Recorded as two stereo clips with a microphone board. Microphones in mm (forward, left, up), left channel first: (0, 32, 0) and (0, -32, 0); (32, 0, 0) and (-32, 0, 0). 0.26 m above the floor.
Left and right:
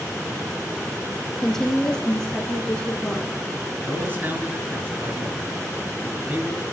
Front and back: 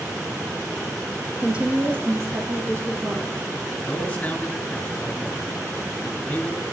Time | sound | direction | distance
1.4 | a woman speaking | 160° left | 1.0 m
3.9 | a man speaking | 55° right | 2 m